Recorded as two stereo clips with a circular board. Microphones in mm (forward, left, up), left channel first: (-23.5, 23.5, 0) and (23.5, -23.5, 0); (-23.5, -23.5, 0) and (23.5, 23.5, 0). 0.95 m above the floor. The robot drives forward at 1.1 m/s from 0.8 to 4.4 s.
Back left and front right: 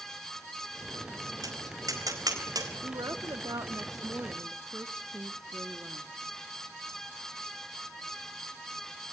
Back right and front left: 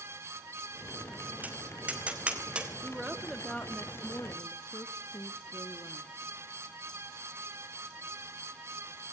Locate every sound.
1.4 s tapping: 20° right, 4.5 m; by 2.7 s 30° right, 3.5 m
2.8 s a woman speaking: 35° right, 1.8 m; by 6.1 s 105° right, 1.1 m